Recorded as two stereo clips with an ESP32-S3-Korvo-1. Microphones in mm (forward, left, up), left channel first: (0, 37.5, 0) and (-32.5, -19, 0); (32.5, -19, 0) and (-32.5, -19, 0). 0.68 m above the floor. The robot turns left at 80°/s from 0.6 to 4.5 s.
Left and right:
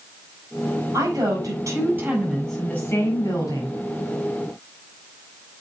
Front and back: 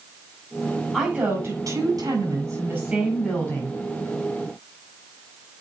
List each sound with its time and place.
0.9 s a woman speaking: 100° right, 4.5 m; by 3.8 s 35° left, 4.5 m